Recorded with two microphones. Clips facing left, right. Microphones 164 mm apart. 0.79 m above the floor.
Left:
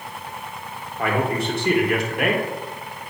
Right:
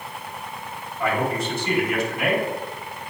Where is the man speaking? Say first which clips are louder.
Left 1 dB; 60° left (ahead or behind), 1.8 m.